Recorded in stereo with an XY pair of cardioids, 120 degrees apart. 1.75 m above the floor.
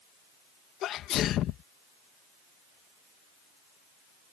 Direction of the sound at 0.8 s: 65° left.